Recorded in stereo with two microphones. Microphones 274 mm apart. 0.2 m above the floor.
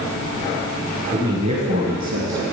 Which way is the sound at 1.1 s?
10° right (ahead or behind).